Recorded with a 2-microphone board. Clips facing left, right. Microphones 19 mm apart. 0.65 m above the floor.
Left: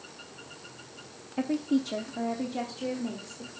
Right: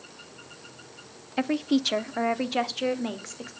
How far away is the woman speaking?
About 0.8 m.